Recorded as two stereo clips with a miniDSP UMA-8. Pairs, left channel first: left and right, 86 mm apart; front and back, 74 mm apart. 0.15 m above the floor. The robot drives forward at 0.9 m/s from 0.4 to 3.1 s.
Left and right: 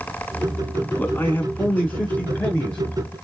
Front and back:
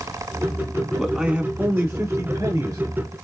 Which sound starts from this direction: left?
A man speaking, at 1.0 s.